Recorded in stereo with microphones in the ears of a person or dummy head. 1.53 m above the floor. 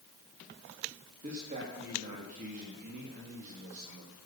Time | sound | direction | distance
1.2 | a man speaking | 45° right (ahead or behind) | 3 m